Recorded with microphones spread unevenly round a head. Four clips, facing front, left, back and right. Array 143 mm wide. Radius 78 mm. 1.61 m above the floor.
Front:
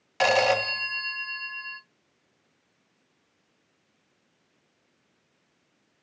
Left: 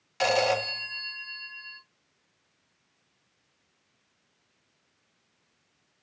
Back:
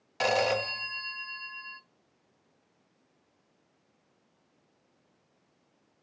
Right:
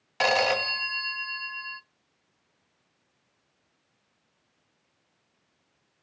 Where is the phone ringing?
40° right, 0.9 m.